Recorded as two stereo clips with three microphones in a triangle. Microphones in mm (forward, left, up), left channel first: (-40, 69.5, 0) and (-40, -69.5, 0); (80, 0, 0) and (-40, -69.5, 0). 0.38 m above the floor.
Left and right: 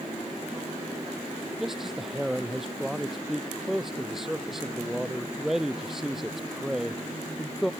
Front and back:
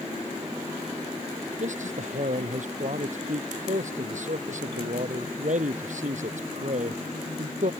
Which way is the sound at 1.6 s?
175° right.